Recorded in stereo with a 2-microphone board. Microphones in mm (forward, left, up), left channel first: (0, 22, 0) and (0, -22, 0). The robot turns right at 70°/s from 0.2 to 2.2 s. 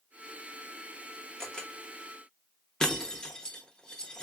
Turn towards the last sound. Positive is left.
turn(degrees=15)  # may be behind; listen again after turning